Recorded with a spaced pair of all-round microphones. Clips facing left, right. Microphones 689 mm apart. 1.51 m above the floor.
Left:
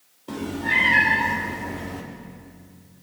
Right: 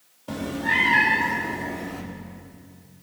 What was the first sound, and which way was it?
A cat meowing, 20° right (ahead or behind).